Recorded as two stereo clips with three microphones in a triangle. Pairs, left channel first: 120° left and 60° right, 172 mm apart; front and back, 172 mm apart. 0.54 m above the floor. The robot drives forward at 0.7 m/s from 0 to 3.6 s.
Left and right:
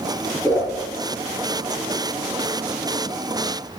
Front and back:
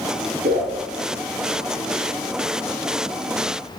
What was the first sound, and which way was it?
A whoosh, 165° right.